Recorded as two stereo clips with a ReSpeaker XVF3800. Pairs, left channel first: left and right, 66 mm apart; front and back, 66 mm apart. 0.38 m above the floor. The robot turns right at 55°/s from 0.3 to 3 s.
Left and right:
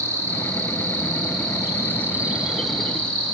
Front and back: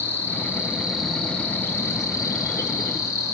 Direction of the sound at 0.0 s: 130° right.